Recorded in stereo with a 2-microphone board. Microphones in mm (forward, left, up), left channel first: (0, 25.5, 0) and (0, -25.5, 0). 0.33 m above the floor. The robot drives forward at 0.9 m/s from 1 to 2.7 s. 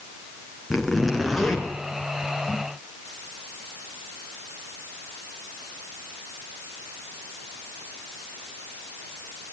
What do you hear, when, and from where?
0.7 s a zipper: centre (ahead or behind), 5 m